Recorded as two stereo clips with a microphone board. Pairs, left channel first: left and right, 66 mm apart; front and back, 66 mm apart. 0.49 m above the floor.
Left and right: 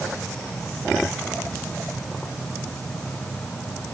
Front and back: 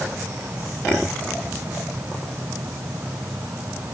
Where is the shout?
I don't hear a shout.